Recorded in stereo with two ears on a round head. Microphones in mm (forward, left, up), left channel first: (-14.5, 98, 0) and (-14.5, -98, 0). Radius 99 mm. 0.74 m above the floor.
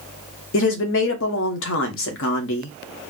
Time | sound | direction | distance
0.5 | a woman speaking | 60° left (ahead or behind) | 0.9 m